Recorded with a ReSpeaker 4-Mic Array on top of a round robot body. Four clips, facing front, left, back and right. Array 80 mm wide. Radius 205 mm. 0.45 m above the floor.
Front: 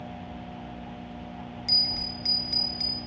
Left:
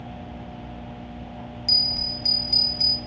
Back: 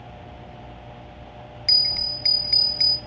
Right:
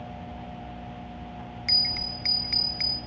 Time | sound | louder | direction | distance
1.7 | a bell | left 2 dB, even | 110° right | 0.6 m